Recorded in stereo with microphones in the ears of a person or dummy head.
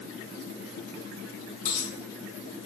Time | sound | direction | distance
1.6 | a dropped coin | 55° left (ahead or behind) | 4.5 m